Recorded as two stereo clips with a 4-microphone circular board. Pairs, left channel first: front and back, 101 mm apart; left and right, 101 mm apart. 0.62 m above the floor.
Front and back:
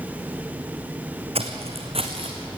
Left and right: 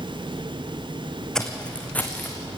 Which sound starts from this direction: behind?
Footsteps, at 1.4 s.